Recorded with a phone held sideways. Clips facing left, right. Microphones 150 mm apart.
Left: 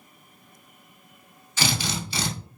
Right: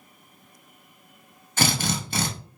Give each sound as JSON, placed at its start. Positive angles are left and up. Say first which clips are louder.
{"t": 1.6, "sound": "a drill", "louder": "right 3 dB", "side_deg": -55, "distance_m": 0.8}